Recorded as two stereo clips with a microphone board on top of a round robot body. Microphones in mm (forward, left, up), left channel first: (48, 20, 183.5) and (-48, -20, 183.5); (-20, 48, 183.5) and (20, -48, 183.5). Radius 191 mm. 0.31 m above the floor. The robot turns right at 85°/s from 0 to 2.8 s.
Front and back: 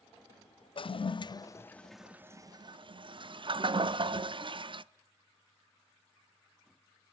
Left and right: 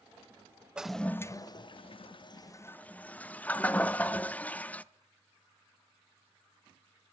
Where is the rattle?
I don't hear a rattle.